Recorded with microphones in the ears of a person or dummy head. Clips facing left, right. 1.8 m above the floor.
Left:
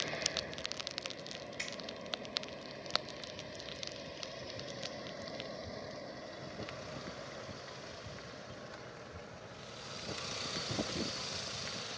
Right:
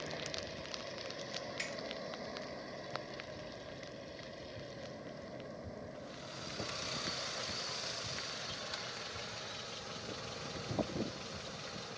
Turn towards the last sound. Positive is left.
turn(degrees=0)  # may be behind; listen again after turning